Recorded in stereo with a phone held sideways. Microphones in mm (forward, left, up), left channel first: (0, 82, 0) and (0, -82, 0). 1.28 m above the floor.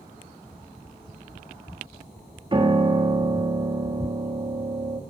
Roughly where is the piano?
Right.